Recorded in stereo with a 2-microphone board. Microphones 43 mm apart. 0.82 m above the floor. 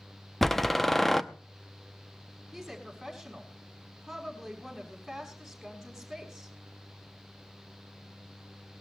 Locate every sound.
0.4 s a door slam: 5° left (ahead or behind), 0.8 m
2.5 s a woman speaking: centre (ahead or behind), 5.5 m